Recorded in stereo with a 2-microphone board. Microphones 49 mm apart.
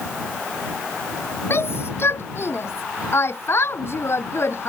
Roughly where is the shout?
Left.